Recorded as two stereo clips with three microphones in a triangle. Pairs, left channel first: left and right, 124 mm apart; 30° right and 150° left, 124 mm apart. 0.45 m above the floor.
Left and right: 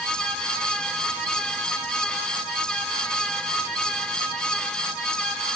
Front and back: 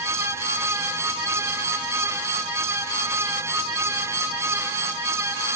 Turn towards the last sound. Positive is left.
No sound to turn to.